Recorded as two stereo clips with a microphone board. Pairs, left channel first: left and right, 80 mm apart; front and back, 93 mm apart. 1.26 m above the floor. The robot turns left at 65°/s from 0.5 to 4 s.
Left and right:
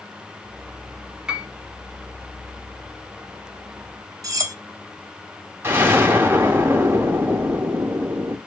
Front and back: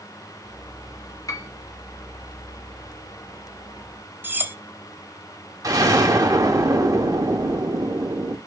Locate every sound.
1.3 s a piano: 15° right, 0.7 m; by 1.5 s 25° right, 0.7 m
4.2 s cutlery clinking: 115° right, 0.6 m
5.6 s an explosion: 145° right, 0.8 m